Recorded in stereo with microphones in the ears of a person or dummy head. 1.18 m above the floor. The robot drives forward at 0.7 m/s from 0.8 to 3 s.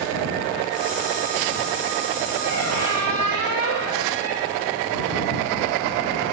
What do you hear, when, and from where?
2.4 s a squeak: 80° right, 9.5 m